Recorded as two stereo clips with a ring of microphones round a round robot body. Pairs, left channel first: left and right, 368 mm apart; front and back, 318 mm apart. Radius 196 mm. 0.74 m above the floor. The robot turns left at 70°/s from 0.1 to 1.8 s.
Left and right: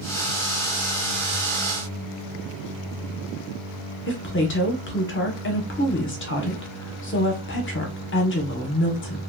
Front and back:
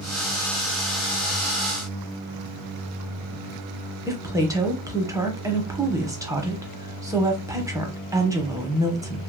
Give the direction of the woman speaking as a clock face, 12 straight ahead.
8 o'clock.